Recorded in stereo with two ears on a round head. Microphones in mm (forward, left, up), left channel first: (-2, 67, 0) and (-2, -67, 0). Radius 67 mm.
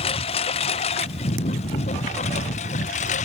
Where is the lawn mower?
40° left (ahead or behind); by 3.3 s 50° left (ahead or behind).